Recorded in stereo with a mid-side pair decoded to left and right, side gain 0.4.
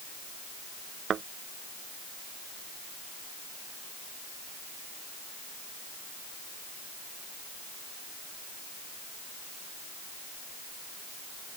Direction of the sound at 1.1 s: 60° right.